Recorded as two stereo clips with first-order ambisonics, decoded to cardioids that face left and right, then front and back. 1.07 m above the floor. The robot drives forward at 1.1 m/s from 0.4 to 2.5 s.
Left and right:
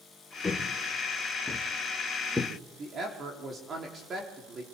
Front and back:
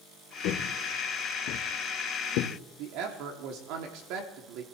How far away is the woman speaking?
About 3 m.